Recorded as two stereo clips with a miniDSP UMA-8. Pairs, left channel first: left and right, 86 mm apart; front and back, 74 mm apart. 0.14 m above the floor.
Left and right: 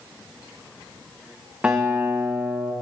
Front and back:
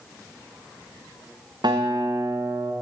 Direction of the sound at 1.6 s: 165° right.